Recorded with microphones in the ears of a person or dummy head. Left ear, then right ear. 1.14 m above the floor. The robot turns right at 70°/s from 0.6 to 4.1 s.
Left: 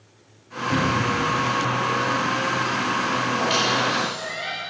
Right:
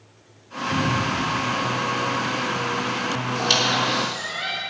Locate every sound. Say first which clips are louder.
0.7 s a cupboard door: left 1 dB; 35° left (ahead or behind), 1.9 m; by 1.2 s 70° left (ahead or behind), 1.9 m
3.3 s a squeak: right 3 dB; 70° right, 2.5 m; by 4.6 s 15° right, 2.5 m